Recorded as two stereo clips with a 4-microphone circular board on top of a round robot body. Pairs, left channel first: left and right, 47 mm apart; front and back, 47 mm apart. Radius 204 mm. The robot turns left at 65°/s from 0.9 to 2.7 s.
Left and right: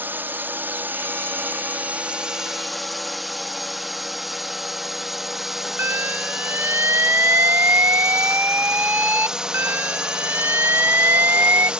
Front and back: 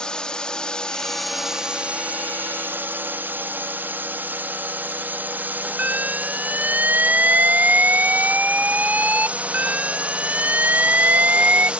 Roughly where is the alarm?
Behind right.